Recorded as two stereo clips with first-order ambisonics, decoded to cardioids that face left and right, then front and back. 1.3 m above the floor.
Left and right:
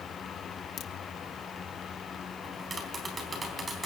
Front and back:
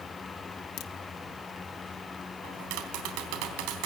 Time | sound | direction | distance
0.8 | a crack | 35° left | 1.3 m
2.4 | tapping | 165° right | 3.5 m